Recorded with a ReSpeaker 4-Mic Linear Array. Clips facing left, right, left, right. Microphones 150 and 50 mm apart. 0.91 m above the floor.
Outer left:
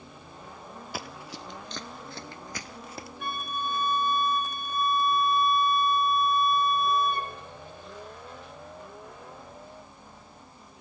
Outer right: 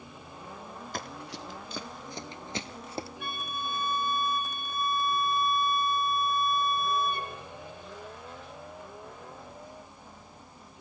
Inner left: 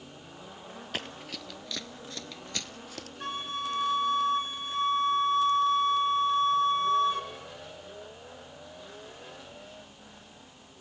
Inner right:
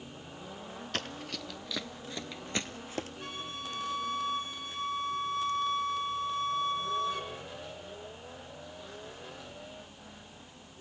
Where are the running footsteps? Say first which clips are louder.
Even, even; 5° left (ahead or behind), 1.2 m; by 3.1 s 30° right (ahead or behind), 1.2 m.